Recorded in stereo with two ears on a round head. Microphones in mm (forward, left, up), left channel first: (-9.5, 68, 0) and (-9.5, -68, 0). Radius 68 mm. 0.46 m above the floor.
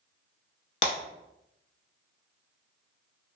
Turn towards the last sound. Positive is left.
turn(degrees=45)  # may be behind; listen again after turning